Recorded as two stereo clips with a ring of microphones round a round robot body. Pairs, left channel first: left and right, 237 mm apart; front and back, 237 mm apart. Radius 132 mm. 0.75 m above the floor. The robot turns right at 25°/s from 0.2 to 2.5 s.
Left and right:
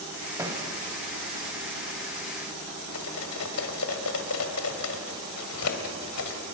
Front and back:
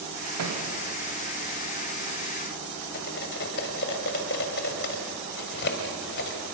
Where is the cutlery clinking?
55° left, 2.0 m.